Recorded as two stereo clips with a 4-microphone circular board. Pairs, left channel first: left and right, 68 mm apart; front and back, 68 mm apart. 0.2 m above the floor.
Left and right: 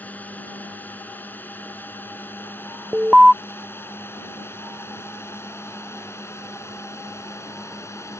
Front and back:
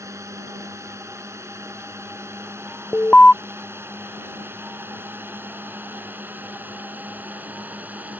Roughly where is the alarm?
Ahead right.